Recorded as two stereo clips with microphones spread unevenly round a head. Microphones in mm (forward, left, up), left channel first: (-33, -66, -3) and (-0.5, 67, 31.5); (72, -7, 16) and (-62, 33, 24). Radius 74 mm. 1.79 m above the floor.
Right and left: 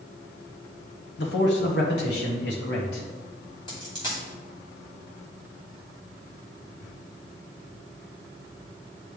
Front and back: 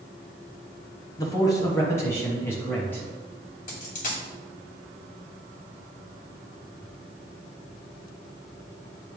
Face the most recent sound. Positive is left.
turn(degrees=-35)